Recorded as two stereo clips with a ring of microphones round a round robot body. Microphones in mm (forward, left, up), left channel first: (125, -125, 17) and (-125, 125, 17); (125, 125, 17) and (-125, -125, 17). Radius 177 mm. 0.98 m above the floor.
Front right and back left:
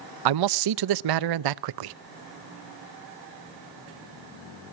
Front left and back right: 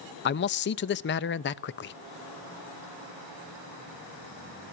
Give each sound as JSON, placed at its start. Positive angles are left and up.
{"t": 0.2, "sound": "a man speaking", "azimuth_deg": 105, "distance_m": 0.6}